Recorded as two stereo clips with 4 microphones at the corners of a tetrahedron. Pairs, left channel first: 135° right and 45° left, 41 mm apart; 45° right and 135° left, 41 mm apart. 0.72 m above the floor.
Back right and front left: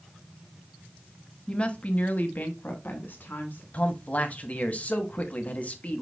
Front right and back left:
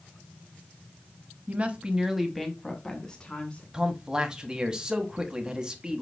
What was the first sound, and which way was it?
A woman speaking, 170° left.